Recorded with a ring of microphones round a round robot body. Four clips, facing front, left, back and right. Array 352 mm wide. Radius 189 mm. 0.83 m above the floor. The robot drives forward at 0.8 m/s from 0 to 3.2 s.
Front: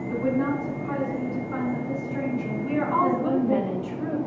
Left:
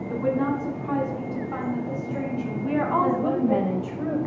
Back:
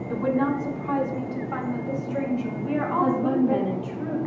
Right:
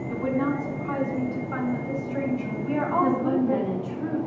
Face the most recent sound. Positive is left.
turn(degrees=100)